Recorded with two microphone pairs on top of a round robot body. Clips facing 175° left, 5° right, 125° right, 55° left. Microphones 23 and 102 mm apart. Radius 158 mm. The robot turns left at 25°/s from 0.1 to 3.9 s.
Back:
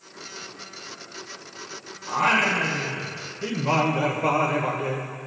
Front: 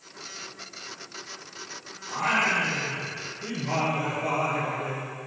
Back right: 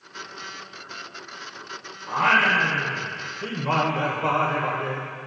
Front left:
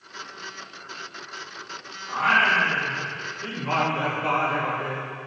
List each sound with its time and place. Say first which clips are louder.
2.1 s singing: back 3 dB, back right 1 dB; 135° right, 1.6 m; by 5.1 s 175° left, 1.6 m